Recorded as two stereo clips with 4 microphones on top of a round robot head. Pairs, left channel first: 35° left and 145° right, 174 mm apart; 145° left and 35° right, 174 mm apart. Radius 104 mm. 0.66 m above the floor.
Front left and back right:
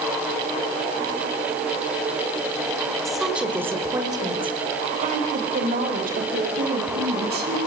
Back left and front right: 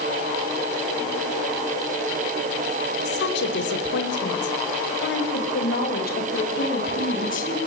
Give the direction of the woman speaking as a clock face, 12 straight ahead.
8 o'clock.